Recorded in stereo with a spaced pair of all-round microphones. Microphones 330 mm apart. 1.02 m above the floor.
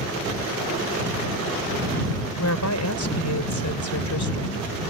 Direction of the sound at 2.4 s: 65° left (ahead or behind).